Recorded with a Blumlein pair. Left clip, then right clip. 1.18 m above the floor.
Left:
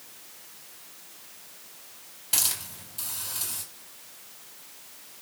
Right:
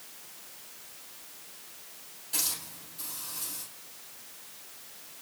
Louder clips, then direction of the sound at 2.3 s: Left 5 dB; 40° left.